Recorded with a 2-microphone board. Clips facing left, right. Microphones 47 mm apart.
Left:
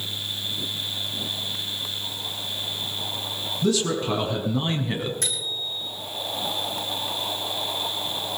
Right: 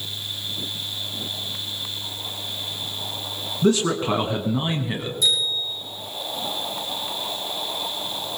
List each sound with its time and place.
3.6 s a man speaking: 40° right (ahead or behind), 1.9 m; by 5.1 s 5° left (ahead or behind), 1.4 m
5.2 s a bicycle bell: 60° left (ahead or behind), 7 m